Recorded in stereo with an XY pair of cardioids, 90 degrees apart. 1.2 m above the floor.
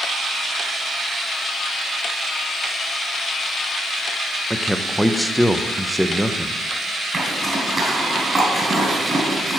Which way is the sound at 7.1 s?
25° right.